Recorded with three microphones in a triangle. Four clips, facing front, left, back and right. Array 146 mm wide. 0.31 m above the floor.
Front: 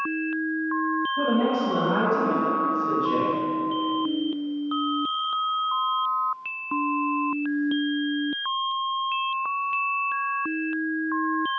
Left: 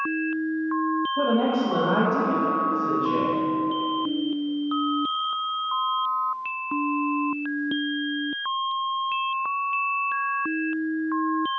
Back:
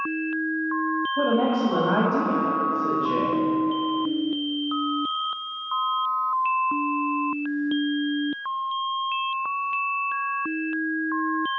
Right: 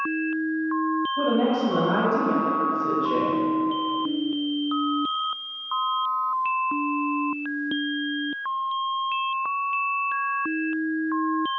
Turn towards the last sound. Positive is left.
turn(degrees=-175)